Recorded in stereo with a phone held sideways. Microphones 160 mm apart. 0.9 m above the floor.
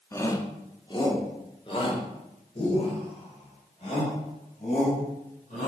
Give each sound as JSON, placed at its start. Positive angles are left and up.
{"t": 0.1, "sound": "a shout", "side_deg": 20, "distance_m": 1.9}